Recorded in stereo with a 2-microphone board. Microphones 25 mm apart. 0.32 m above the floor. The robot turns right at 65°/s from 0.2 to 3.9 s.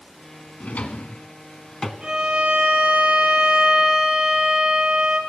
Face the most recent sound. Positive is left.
turn(degrees=-20)